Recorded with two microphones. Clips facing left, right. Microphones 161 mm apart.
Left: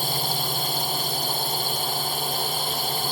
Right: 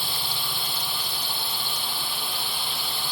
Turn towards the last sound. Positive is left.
turn(degrees=40)  # may be behind; listen again after turning